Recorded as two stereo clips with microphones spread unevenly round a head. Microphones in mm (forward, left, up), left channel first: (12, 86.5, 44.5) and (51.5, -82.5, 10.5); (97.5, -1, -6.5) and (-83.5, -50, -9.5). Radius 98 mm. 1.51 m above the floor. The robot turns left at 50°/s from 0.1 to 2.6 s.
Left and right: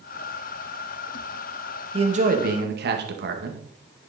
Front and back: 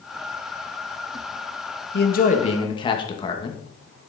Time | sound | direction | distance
1.9 | a man speaking | 20° right | 2 m